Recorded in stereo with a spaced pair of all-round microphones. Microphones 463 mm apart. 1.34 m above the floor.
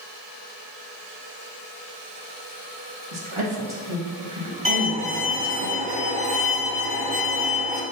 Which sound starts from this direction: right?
A woman speaking, at 3.1 s.